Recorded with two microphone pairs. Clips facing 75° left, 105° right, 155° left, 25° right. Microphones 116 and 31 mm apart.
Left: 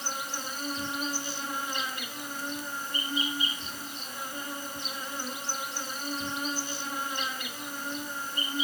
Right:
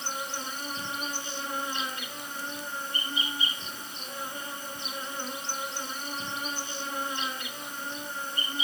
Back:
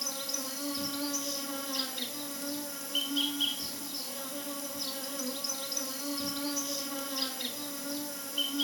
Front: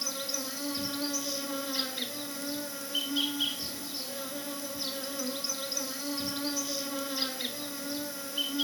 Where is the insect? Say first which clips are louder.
Right 1 dB, front 2 dB; 55° right, 1.6 m.